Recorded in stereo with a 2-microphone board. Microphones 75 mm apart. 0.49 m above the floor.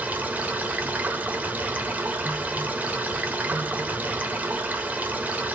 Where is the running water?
20° right (ahead or behind), 0.9 m.